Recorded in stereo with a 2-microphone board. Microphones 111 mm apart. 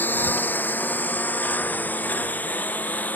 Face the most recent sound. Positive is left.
turn(degrees=15)  # may be behind; listen again after turning